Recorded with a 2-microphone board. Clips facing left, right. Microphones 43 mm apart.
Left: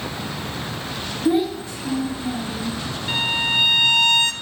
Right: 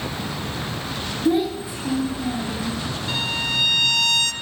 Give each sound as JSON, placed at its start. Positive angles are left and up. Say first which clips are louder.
{"t": 1.2, "sound": "a child speaking", "louder": "left 1 dB", "side_deg": 10, "distance_m": 1.3}
{"t": 3.1, "sound": "a violin", "louder": "left 4 dB", "side_deg": 25, "distance_m": 0.6}